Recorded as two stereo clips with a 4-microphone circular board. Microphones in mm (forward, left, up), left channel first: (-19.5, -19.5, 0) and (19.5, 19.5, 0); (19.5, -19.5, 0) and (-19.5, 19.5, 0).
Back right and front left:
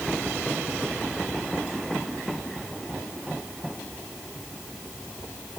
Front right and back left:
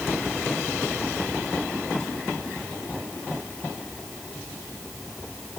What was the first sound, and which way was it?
Only background noise.